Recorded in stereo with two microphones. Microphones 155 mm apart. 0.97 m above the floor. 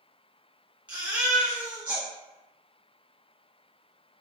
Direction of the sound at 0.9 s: 10° right (ahead or behind).